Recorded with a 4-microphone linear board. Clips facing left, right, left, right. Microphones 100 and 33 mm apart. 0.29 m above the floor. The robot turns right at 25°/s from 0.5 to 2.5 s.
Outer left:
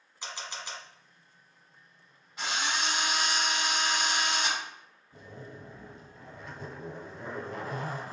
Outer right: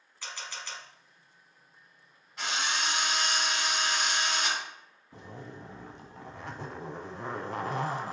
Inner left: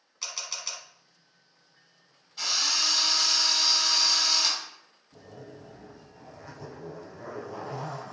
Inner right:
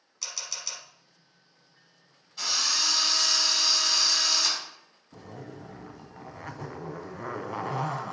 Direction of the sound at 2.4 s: Centre (ahead or behind).